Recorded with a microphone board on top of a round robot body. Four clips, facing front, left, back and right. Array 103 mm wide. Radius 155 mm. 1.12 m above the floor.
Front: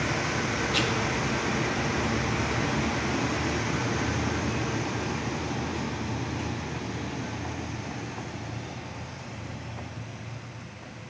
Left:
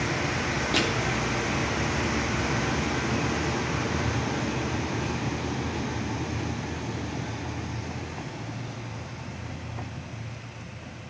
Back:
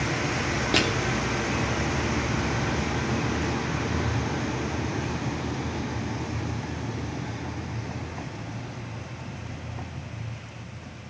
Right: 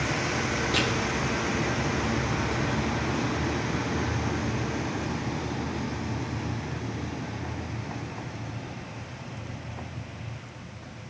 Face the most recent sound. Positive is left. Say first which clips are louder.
# left 2 dB, back 6 dB
turn(degrees=175)